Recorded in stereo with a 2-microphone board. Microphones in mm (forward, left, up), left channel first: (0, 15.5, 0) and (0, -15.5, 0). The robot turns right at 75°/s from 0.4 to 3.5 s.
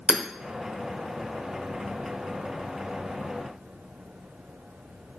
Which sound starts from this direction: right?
Hammering, at 0.1 s.